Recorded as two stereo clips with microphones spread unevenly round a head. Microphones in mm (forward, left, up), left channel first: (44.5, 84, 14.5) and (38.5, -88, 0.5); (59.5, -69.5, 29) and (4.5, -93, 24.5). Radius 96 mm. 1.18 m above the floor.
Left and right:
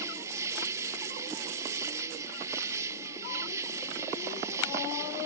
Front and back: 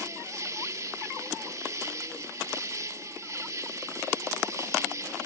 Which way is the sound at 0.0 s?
165° right.